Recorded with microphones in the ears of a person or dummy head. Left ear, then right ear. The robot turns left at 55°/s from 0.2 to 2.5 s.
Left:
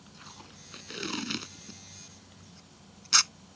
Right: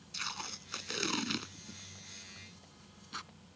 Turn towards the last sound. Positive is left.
turn(degrees=55)  # may be behind; listen again after turning